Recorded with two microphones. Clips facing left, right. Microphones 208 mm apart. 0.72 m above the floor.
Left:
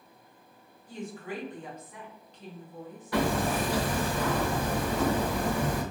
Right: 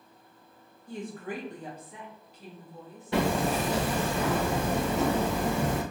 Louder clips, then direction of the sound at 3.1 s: Right 1 dB; 25° right (ahead or behind).